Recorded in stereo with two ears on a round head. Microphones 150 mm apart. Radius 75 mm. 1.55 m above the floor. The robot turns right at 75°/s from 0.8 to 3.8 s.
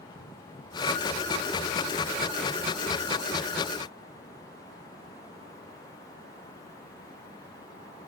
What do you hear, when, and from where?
Only background noise.